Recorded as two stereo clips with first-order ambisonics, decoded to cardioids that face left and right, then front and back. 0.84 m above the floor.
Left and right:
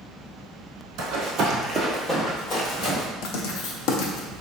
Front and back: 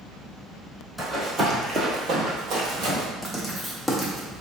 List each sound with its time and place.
1.0 s running footsteps: 85° right, 1.2 m; by 3.0 s 130° left, 1.8 m
3.2 s writing: 90° left, 0.5 m